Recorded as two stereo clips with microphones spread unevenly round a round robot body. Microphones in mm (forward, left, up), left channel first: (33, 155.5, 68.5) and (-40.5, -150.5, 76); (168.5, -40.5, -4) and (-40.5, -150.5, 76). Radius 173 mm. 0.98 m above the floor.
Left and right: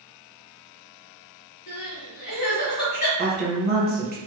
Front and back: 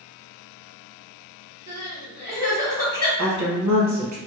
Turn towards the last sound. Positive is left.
turn(degrees=-160)